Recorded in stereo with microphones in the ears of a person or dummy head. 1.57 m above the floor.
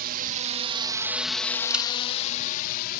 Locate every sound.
0.0 s a drone: 55° right (ahead or behind); by 3.0 s 55° left (ahead or behind)
1.7 s a camera shutter: 5° right (ahead or behind)